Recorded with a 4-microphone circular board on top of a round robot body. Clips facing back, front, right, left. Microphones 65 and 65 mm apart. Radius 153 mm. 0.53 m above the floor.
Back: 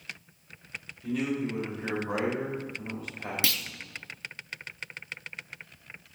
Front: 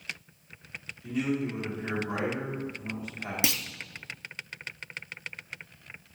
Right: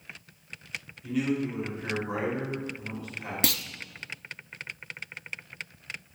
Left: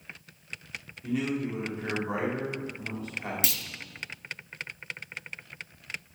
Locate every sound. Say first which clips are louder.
1.0 s a man speaking: even, right 1 dB; 150° left, 3 m
3.4 s a clunk: front 3 dB, right 5 dB; 70° right, 0.6 m